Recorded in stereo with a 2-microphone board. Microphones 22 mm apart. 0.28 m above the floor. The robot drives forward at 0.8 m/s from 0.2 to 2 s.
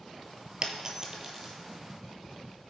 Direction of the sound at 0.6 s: 35° right (ahead or behind).